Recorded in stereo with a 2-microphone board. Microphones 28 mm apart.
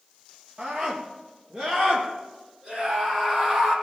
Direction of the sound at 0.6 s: 25° right (ahead or behind).